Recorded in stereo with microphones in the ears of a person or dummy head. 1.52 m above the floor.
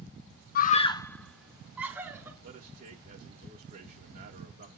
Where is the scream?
50° left (ahead or behind), 0.5 m; by 2.3 s 15° right (ahead or behind), 1.8 m.